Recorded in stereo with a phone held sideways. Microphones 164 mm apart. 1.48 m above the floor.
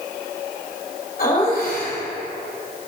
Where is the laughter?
65° left (ahead or behind), 2.5 m.